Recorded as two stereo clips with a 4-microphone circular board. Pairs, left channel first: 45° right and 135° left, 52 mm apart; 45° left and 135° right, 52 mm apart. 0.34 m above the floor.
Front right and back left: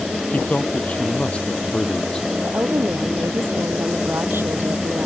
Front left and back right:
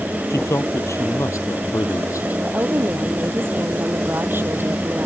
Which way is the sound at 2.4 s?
Straight behind.